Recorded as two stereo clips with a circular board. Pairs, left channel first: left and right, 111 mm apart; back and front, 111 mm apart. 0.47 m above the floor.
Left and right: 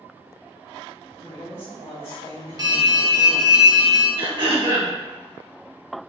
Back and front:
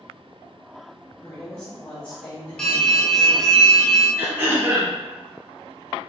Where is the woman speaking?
110° left, 1.6 m.